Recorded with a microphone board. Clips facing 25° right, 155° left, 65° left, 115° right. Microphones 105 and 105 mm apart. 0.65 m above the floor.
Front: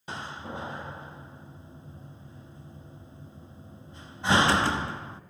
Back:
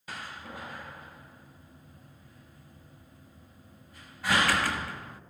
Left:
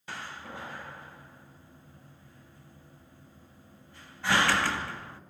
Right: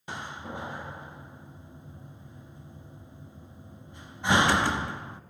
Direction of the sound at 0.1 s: 60° right.